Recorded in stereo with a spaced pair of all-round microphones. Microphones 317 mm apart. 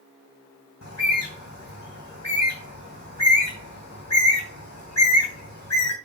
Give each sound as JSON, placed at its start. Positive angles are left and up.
{"t": 0.8, "sound": "a bird", "side_deg": 55, "distance_m": 3.0}